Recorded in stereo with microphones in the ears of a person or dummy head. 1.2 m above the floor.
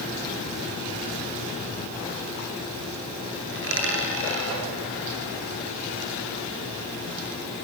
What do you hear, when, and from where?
3.5 s a dropped coin: 70° right (ahead or behind), 8 m